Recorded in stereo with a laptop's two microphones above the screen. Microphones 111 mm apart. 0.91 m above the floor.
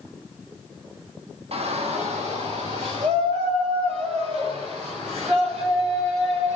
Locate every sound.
1.5 s a shout: 60° right (ahead or behind), 1.3 m; by 6.6 s 85° right, 9 m